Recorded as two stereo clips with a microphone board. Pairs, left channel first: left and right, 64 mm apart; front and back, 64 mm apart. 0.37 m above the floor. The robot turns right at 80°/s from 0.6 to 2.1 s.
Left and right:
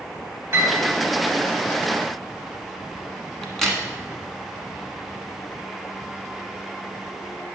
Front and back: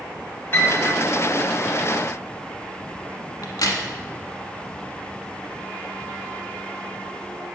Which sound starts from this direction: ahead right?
A piano, at 0.5 s.